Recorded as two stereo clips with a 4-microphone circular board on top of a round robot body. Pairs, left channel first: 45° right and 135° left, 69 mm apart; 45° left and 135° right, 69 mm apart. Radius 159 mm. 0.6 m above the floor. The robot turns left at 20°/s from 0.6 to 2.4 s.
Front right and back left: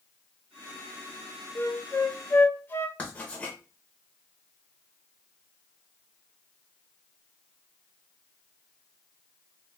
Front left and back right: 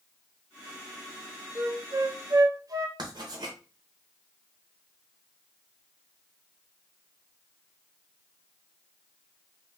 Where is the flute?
85° right, 0.6 m; by 2.9 s 105° right, 0.6 m.